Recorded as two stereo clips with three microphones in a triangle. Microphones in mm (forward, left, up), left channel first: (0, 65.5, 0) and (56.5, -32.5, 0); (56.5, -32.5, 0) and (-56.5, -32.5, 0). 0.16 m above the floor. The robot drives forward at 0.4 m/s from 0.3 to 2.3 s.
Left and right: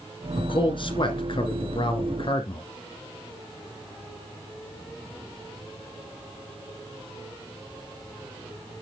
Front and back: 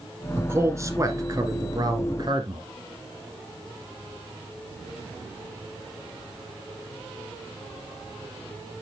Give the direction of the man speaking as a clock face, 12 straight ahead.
8 o'clock.